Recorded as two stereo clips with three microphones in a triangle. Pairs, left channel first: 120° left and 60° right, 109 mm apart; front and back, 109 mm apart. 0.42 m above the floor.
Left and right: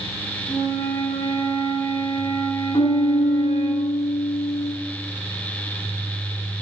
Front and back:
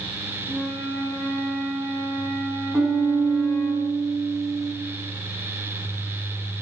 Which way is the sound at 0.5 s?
85° left.